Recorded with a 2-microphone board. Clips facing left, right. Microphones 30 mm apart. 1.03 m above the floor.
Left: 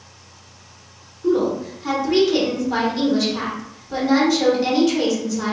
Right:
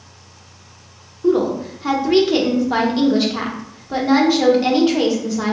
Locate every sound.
1.2 s a woman speaking: 25° right (ahead or behind), 1.1 m